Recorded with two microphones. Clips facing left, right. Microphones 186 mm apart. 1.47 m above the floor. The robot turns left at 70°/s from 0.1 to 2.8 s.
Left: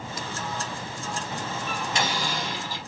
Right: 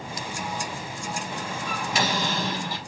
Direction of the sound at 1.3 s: 40° left.